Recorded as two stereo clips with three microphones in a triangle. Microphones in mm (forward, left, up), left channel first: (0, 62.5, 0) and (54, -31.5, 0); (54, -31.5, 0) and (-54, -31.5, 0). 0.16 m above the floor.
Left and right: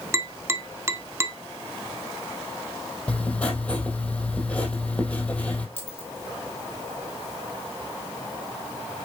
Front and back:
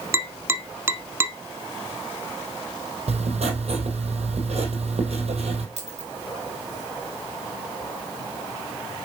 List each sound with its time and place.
0.1 s tapping: 115° right, 0.8 m
3.1 s writing: 160° right, 2.5 m
5.8 s a dropped coin: 170° right, 2.5 m